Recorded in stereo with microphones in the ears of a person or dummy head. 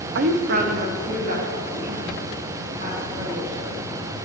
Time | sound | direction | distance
0.1 | a woman speaking | 60° right (ahead or behind) | 0.6 m